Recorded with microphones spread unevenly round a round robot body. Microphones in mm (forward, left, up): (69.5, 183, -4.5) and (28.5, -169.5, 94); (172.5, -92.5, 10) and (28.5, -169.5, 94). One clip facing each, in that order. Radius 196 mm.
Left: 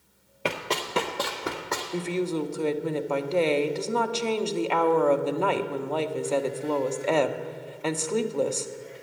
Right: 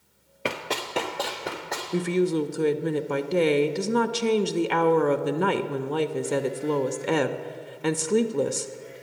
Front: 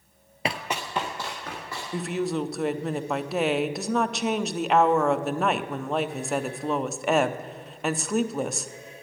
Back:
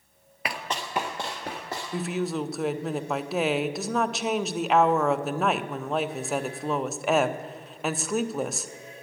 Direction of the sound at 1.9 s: 25° right.